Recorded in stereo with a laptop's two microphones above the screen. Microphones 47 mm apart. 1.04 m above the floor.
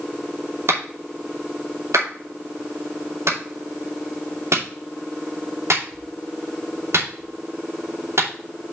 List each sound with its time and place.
0.7 s a clap: 75° right (ahead or behind), 2.5 m